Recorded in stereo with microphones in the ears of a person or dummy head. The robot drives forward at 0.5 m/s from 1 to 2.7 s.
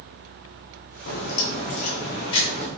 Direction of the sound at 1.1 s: 60° left (ahead or behind).